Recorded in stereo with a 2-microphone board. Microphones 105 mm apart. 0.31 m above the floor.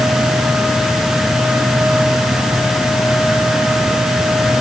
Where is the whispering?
No whispering in this recording.